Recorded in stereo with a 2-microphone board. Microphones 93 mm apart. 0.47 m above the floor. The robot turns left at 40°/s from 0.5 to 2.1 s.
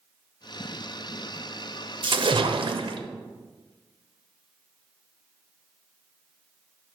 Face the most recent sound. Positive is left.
turn(degrees=-65)  # may be behind; listen again after turning